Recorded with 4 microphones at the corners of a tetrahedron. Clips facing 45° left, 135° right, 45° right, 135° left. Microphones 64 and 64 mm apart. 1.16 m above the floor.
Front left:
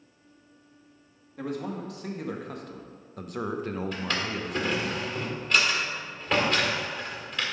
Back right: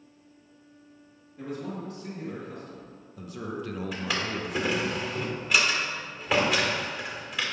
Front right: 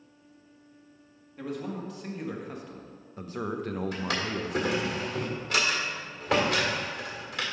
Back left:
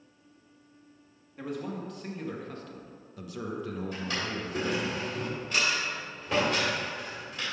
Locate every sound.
1.4 s a man speaking: 45° left, 1.7 m; by 4.9 s 65° right, 0.9 m
3.9 s a drawer: 50° right, 1.7 m